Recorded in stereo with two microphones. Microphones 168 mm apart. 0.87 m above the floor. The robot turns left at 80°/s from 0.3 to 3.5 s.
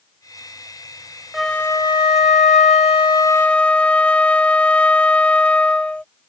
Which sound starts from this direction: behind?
A flute, at 1.3 s.